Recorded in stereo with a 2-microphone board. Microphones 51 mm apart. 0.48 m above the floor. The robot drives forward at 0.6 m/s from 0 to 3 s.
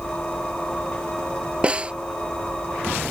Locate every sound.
1.6 s a snare drum: 20° right (ahead or behind)